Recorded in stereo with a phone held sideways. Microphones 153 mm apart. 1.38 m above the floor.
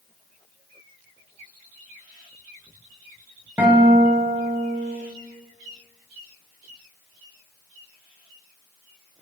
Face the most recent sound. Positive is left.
turn(degrees=-15)  # may be behind; listen again after turning